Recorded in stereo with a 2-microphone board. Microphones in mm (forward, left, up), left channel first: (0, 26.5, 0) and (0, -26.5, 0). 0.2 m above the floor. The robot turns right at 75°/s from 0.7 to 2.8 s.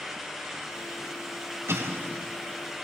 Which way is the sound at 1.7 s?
100° right.